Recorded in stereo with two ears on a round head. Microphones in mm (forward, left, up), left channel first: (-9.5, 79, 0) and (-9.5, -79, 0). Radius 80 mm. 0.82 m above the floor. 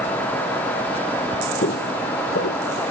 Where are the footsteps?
55° left (ahead or behind), 1.3 m; by 2.6 s 65° left (ahead or behind), 1.8 m.